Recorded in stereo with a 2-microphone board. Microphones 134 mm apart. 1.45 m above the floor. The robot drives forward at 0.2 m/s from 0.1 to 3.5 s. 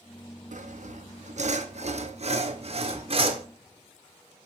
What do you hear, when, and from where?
0.5 s sawing: 70° right (ahead or behind), 0.8 m; by 3.5 s 45° right (ahead or behind), 1.1 m